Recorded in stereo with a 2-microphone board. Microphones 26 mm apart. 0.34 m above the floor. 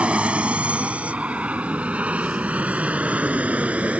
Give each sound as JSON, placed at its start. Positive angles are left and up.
{"t": 0.0, "sound": "an aircraft", "side_deg": -55}